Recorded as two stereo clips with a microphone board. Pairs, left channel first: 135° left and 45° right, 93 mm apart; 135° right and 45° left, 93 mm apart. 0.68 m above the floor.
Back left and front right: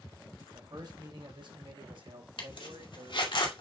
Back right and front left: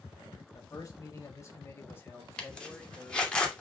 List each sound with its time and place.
0.5 s a man speaking: 90° right, 3 m; by 3.3 s 50° right, 3 m
2.4 s a zipper: 145° left, 2.5 m